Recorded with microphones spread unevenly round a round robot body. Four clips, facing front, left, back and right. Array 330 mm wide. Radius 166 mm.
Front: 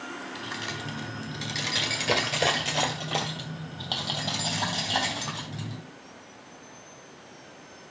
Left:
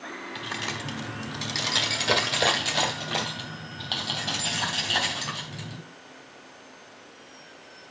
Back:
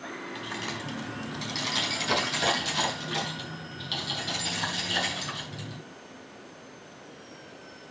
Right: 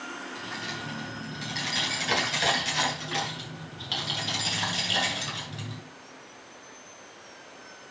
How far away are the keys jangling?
About 1.5 m.